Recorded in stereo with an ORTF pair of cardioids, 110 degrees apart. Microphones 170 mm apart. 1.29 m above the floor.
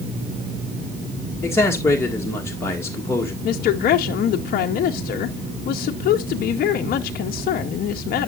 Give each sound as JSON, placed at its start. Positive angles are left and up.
{"t": 1.4, "sound": "a man speaking", "azimuth_deg": 15, "distance_m": 2.0}
{"t": 3.4, "sound": "a woman speaking", "azimuth_deg": 65, "distance_m": 0.8}